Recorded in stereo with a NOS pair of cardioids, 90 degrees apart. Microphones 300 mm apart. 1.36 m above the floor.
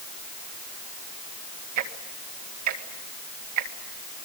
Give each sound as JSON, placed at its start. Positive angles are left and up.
{"t": 1.8, "sound": "ticking", "azimuth_deg": -70, "distance_m": 1.9}